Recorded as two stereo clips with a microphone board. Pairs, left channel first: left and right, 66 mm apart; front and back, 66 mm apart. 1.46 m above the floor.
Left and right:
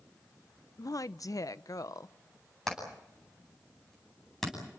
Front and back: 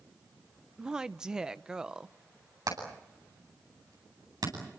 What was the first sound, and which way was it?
A woman speaking, 100° left.